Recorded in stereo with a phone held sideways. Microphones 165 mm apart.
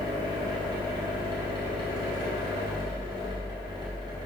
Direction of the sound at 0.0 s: 25° right (ahead or behind).